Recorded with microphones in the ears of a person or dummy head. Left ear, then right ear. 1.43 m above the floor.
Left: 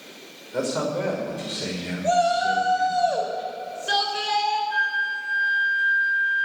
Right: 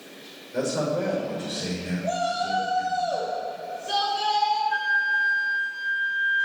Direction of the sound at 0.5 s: 35° left (ahead or behind).